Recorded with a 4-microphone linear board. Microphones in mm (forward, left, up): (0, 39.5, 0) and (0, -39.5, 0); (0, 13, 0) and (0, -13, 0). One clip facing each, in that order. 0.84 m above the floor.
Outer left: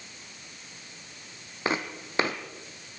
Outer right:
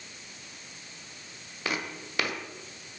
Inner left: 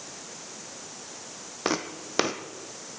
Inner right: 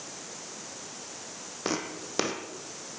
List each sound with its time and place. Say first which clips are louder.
1.6 s footsteps: outer left 4 dB, inner left 3 dB; 30° left (ahead or behind), 1.7 m